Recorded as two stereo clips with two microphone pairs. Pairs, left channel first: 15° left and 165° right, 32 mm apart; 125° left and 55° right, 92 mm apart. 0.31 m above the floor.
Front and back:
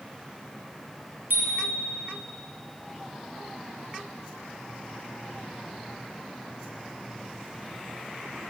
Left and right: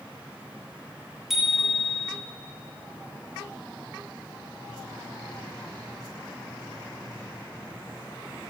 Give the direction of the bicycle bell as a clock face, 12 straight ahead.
5 o'clock.